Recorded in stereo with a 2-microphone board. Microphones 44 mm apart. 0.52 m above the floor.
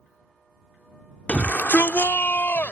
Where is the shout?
30° left (ahead or behind); by 2.7 s 55° left (ahead or behind).